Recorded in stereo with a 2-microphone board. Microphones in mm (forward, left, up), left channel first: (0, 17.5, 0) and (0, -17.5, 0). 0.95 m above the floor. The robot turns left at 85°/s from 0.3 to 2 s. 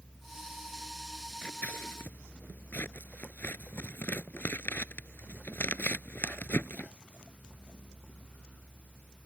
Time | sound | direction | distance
1.4 | scissors | 40° left (ahead or behind) | ?